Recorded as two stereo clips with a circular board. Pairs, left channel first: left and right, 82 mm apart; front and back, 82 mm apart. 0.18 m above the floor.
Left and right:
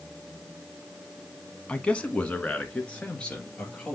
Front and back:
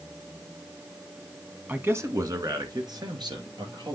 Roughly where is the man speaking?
Behind left.